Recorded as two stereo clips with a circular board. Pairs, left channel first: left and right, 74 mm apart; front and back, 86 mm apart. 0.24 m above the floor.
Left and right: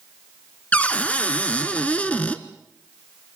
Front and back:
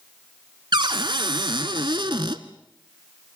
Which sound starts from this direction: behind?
A cupboard door, at 0.7 s.